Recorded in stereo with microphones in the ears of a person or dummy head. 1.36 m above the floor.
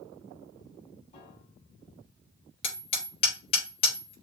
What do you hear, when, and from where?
1.1 s a piano: 35° left (ahead or behind), 3.5 m
2.6 s hammering: 40° left (ahead or behind), 4 m